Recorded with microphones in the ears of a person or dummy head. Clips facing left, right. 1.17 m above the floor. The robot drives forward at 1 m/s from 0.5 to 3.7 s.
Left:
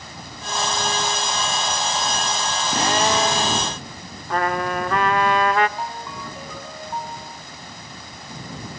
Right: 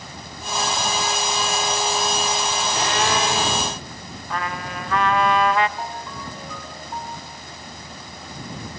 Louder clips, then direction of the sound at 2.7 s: Left 3 dB; 40° left (ahead or behind).